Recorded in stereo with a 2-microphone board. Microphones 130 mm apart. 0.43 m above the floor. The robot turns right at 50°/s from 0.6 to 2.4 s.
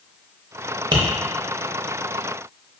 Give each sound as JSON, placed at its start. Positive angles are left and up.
{"t": 0.9, "sound": "tapping", "side_deg": -40, "distance_m": 0.5}